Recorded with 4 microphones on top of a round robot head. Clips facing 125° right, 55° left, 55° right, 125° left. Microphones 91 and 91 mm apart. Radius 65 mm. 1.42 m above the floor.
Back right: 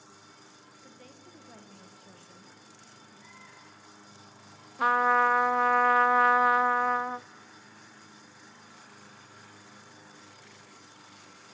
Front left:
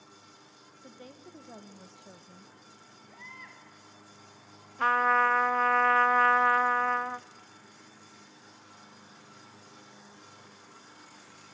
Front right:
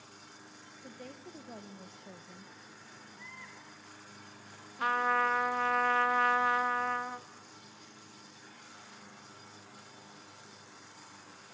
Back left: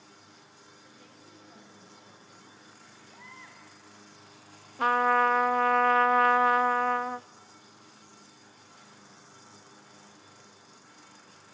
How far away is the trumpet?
About 0.5 m.